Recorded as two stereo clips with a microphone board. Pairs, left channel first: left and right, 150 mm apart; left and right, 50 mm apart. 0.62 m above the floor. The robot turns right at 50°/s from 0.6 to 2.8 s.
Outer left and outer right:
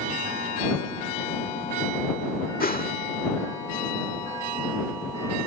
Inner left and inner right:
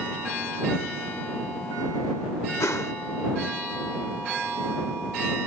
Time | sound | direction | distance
2.6 | a whoosh | 75° left (ahead or behind) | ?